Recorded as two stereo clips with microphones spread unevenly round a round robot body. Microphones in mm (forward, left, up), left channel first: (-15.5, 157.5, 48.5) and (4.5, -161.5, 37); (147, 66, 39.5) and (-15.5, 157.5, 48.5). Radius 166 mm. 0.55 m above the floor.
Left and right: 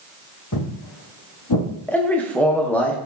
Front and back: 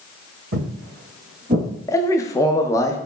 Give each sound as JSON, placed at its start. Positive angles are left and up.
{"t": 0.5, "sound": "footsteps", "azimuth_deg": 140, "distance_m": 1.8}
{"t": 1.9, "sound": "a man speaking", "azimuth_deg": 10, "distance_m": 0.6}